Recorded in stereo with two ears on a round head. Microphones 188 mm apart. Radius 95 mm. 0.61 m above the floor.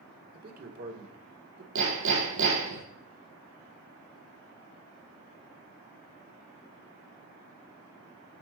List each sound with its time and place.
0.3 s a man speaking: 45° right (ahead or behind), 2.0 m
1.8 s hammering: 75° right (ahead or behind), 7 m